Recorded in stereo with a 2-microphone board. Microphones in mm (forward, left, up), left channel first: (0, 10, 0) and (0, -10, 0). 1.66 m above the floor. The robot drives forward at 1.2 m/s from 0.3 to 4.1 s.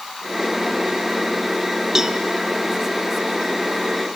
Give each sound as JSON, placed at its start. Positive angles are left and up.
{"t": 1.9, "sound": "a cowbell", "side_deg": -20, "distance_m": 0.8}